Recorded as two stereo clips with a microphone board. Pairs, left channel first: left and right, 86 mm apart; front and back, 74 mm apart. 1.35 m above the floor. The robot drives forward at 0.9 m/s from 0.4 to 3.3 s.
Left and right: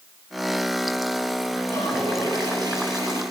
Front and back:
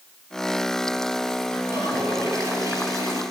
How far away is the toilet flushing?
About 8 m.